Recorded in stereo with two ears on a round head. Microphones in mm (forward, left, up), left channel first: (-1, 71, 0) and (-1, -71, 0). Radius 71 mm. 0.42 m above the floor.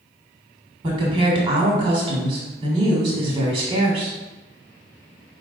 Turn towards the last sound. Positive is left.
turn(degrees=-30)  # may be behind; listen again after turning